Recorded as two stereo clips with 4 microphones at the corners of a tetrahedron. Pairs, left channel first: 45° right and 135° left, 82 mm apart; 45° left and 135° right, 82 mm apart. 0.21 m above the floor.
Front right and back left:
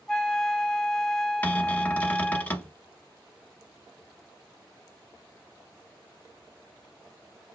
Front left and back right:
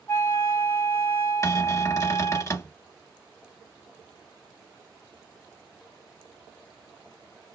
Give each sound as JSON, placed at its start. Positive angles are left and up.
{"t": 0.1, "sound": "a flute", "azimuth_deg": 30, "distance_m": 1.1}
{"t": 1.4, "sound": "a cupboard door", "azimuth_deg": 15, "distance_m": 0.7}